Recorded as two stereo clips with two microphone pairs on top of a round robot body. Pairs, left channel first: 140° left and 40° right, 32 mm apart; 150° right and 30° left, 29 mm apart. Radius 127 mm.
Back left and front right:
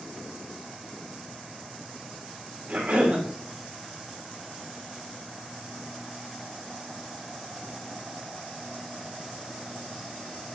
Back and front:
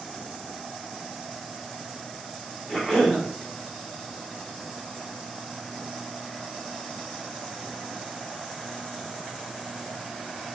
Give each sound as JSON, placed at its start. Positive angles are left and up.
{"t": 2.7, "sound": "a cough", "azimuth_deg": -85, "distance_m": 3.0}